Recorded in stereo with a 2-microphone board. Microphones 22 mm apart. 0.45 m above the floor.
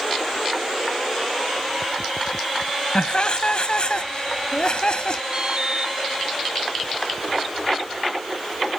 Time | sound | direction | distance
3.0 | laughter | 45° left (ahead or behind) | ?
5.3 | an alarm | 35° right (ahead or behind) | ?